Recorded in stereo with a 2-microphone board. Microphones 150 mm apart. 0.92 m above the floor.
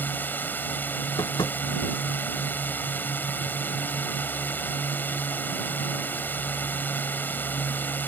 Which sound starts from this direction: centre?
A drone, at 0.0 s.